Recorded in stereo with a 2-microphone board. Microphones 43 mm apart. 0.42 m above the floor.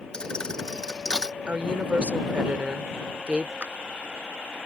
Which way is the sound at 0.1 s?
15° left (ahead or behind).